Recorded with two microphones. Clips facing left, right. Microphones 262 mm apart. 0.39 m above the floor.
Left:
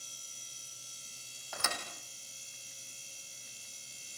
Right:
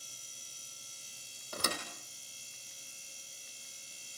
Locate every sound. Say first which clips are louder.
1.5 s a thud: right 4 dB; 40° right (ahead or behind), 3.5 m